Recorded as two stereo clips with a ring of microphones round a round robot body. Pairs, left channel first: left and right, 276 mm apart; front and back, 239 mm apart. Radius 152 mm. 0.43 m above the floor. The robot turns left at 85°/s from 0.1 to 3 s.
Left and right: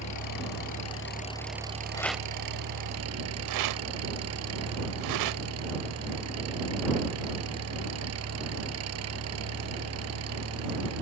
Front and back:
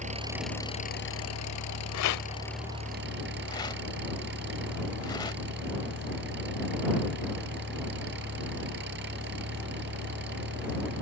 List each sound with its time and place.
0.0 s an engine running: 120° left; by 11.0 s 125° right
1.9 s a rattle: 15° left; by 5.4 s 75° right